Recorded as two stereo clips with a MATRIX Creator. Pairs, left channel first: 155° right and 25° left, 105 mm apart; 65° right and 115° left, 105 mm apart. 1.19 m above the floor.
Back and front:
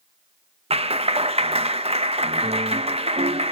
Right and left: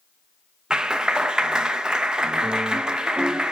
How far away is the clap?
About 0.7 m.